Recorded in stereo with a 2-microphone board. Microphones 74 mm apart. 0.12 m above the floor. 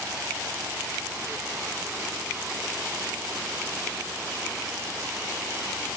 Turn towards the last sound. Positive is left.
No sound to turn to.